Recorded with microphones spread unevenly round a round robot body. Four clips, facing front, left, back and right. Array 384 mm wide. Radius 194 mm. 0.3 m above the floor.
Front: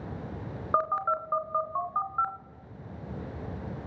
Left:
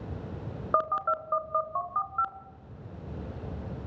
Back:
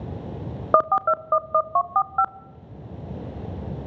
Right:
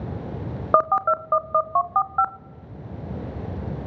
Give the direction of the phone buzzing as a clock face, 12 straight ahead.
5 o'clock.